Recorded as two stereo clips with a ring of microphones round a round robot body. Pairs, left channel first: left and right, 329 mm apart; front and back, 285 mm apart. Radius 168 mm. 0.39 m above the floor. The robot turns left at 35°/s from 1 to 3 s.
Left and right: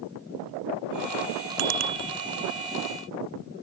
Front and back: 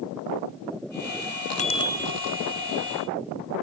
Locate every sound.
1.6 s a bicycle bell: 70° right; by 2.1 s 90° right